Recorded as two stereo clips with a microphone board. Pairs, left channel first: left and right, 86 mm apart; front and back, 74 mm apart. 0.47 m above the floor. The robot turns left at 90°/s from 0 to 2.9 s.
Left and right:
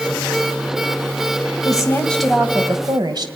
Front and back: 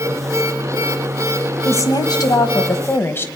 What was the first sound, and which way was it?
A woman speaking, 55° left.